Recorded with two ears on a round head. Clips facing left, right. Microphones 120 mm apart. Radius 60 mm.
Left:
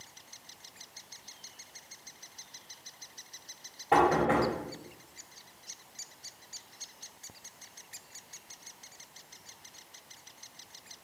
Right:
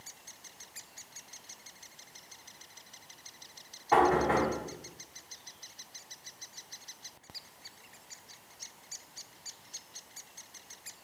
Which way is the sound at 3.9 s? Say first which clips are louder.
Even; 35° left (ahead or behind).